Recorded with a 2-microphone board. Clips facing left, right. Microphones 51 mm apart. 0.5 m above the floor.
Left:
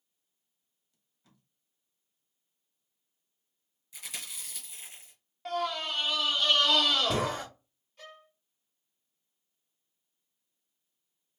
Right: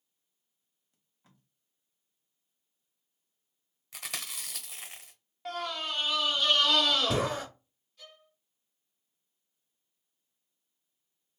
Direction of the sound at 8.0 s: 45° left (ahead or behind).